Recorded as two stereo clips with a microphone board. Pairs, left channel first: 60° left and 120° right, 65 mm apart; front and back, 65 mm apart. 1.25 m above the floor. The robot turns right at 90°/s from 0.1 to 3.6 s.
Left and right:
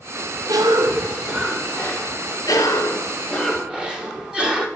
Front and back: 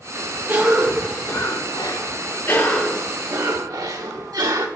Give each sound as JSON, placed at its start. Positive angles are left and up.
{"t": 0.5, "sound": "a cough", "azimuth_deg": -120, "distance_m": 1.8}